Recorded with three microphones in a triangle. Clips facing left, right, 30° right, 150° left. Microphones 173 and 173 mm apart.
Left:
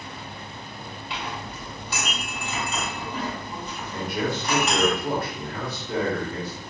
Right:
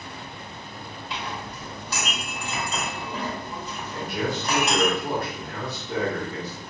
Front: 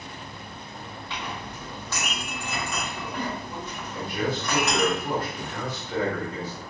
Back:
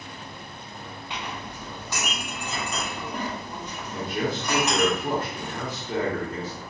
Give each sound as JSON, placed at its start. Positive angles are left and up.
{"t": 1.1, "sound": "a clink", "azimuth_deg": -135, "distance_m": 1.6}
{"t": 3.9, "sound": "a man speaking", "azimuth_deg": 180, "distance_m": 1.2}